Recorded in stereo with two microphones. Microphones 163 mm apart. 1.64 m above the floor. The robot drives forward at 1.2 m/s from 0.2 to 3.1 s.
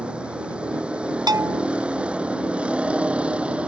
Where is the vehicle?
5° right (ahead or behind).